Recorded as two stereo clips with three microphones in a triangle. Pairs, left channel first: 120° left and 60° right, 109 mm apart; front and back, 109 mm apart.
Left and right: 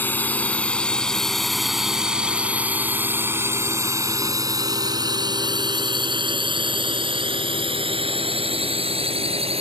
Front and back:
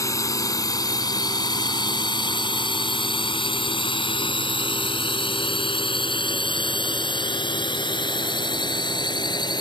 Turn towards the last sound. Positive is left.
turn(degrees=-45)